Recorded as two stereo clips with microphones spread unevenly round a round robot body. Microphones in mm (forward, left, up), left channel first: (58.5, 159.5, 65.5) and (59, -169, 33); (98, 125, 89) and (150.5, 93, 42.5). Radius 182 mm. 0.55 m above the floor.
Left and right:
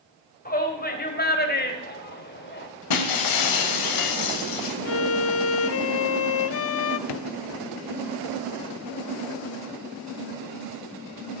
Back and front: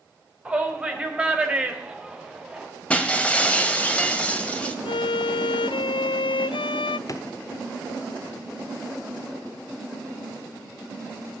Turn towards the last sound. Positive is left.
turn(degrees=95)